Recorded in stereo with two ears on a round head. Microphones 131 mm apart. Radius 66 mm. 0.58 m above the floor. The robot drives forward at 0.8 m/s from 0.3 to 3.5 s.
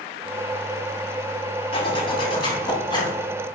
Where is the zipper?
35° left (ahead or behind), 3.5 m; by 3.2 s 25° left (ahead or behind), 4.5 m.